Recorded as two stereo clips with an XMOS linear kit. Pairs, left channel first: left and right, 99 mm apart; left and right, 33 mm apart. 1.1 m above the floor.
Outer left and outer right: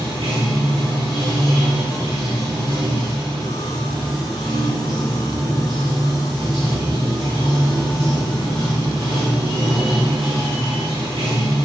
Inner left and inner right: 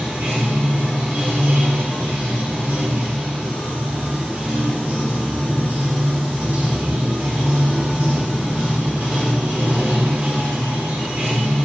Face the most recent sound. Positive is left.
turn(degrees=-75)  # may be behind; listen again after turning